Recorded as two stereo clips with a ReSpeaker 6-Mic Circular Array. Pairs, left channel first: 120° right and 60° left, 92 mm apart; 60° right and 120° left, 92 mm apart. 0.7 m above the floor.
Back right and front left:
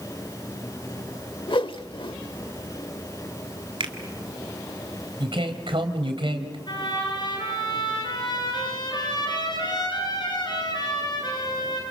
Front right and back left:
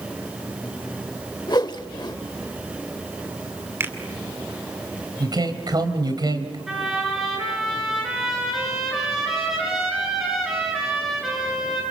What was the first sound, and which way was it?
A whoosh, 100° right.